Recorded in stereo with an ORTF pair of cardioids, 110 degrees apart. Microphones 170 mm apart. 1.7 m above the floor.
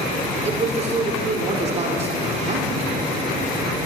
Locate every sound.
0.5 s a man speaking: 40° right, 4.5 m